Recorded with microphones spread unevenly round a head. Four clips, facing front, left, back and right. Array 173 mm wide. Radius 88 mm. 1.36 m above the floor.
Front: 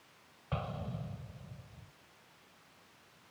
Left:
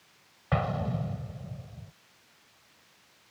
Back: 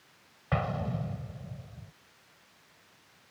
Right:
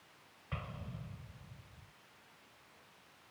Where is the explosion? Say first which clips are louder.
Left 17 dB, back 8 dB; 120° left.